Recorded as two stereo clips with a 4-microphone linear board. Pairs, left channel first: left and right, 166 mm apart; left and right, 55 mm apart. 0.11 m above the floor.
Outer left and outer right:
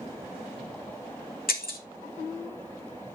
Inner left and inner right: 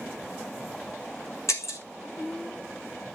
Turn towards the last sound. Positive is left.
turn(degrees=65)  # may be behind; listen again after turning